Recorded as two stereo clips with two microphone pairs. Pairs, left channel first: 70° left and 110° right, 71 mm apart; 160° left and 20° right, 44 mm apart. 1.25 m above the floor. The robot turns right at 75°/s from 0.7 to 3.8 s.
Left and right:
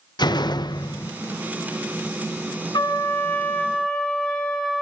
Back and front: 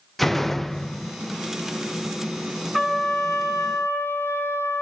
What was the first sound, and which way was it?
A door slam, 70° left.